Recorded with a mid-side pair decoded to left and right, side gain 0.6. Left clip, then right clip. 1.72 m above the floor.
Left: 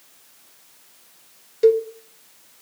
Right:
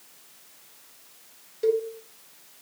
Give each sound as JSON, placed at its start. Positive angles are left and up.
{"t": 1.6, "sound": "a cowbell", "azimuth_deg": 40, "distance_m": 0.6}